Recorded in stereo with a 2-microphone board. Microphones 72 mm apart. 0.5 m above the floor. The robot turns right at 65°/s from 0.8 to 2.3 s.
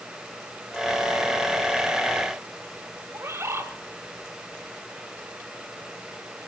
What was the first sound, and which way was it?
A bird, 35° right (ahead or behind).